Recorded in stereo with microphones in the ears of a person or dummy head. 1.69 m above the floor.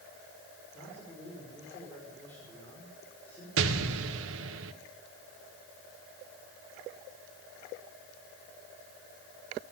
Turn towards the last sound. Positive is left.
turn(degrees=-85)